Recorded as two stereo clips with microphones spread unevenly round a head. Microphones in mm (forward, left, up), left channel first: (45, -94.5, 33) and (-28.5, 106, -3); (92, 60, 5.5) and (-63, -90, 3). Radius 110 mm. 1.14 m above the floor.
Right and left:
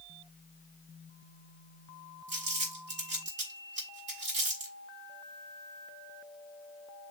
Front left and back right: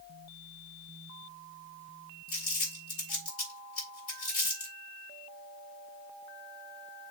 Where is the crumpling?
70° left, 6 m.